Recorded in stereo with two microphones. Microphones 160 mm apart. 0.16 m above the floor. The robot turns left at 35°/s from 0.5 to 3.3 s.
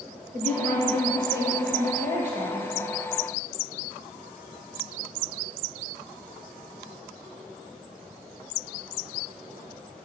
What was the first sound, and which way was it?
A woman speaking, 60° right.